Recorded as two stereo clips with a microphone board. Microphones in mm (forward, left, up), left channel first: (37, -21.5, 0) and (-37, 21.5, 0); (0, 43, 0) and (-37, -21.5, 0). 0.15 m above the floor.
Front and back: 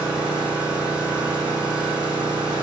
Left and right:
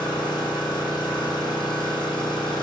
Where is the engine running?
75° left, 2 m.